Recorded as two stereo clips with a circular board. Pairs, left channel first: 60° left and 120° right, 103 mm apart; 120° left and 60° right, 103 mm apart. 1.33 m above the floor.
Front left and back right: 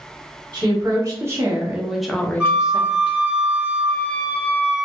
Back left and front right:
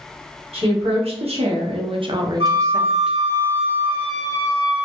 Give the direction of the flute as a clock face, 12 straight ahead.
1 o'clock.